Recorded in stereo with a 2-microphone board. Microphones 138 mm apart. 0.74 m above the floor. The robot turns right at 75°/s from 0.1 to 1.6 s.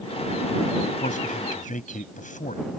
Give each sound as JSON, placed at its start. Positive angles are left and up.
{"t": 1.0, "sound": "a man speaking", "side_deg": 60}